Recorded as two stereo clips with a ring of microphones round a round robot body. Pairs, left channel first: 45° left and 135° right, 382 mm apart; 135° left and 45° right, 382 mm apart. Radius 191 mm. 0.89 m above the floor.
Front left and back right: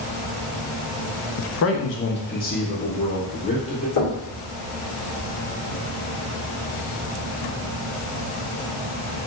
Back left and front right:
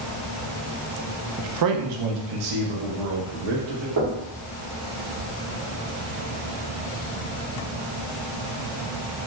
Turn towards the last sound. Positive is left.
turn(degrees=-10)